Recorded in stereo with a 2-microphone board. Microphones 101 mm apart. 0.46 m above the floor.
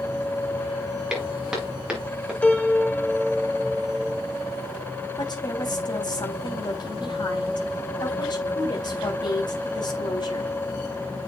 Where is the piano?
10° left (ahead or behind), 1.3 m.